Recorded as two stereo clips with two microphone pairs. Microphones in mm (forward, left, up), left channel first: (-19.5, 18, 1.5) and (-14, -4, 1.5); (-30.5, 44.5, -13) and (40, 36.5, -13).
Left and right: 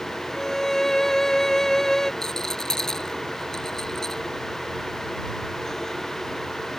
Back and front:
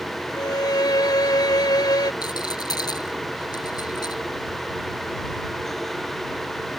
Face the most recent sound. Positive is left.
turn(degrees=165)